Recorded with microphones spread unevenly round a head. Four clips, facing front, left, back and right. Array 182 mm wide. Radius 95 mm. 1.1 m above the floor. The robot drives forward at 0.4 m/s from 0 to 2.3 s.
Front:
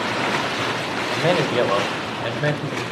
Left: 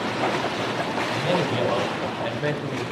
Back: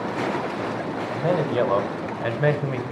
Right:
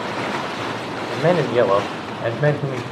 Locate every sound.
1.1 s a man speaking: 60° right, 0.9 m; by 2.8 s 95° right, 0.8 m